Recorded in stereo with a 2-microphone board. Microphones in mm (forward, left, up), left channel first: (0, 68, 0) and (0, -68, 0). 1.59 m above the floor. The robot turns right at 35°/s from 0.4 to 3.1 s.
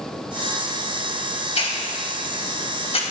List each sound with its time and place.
1.6 s a hiss: 50° left (ahead or behind), 2.5 m